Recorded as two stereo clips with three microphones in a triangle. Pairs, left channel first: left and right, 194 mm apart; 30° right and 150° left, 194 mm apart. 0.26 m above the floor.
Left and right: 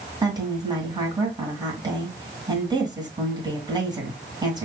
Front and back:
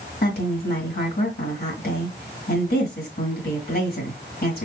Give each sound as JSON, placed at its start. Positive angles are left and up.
{"t": 0.2, "sound": "a woman speaking", "azimuth_deg": -25, "distance_m": 2.0}